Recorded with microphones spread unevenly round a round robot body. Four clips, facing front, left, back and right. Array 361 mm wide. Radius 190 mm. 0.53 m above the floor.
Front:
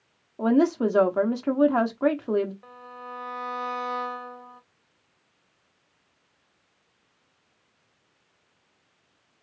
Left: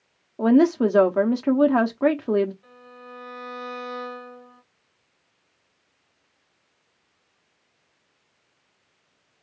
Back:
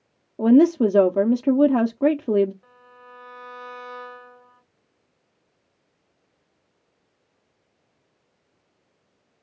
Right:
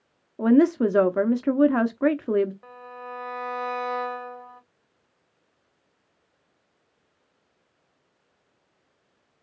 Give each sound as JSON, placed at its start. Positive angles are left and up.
{"t": 0.4, "sound": "a woman speaking", "azimuth_deg": 180, "distance_m": 0.7}
{"t": 2.6, "sound": "a violin", "azimuth_deg": -45, "distance_m": 1.2}